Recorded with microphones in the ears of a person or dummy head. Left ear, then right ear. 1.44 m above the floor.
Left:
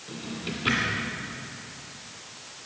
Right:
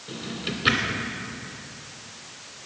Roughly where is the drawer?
Right.